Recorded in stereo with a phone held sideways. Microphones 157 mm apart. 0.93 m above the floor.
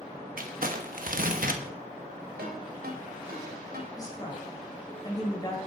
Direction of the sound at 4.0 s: 25° left (ahead or behind).